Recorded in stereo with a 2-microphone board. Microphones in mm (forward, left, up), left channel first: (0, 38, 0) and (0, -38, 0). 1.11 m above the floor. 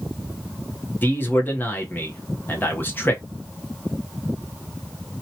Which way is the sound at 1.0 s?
25° left (ahead or behind).